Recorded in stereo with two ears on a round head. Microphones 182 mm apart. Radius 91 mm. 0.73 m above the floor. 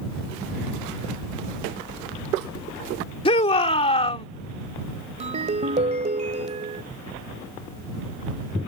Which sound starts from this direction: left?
A shout, at 3.2 s.